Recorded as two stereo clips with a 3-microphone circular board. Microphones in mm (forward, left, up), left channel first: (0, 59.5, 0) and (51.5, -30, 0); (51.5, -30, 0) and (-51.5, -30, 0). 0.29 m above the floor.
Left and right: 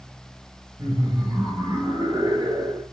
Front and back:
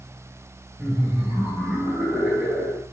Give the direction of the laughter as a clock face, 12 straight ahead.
3 o'clock.